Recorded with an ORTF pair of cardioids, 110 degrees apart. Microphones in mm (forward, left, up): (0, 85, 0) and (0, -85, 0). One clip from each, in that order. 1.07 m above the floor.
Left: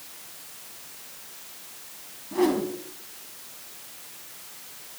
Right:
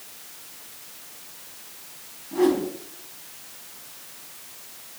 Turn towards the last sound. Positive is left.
turn(degrees=15)